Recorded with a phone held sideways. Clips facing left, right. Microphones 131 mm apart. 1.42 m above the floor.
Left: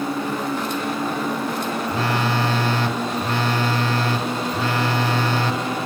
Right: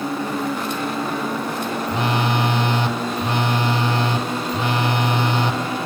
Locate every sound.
1.9 s a phone buzzing: 20° right (ahead or behind), 1.2 m